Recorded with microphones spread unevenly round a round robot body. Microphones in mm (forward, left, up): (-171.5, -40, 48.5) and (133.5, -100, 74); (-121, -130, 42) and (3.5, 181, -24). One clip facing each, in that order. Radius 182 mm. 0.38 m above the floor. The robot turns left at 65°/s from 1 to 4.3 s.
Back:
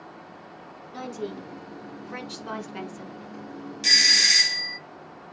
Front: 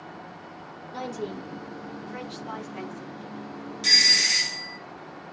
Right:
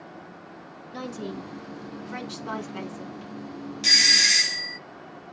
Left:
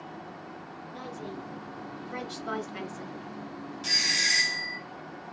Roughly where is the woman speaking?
Right.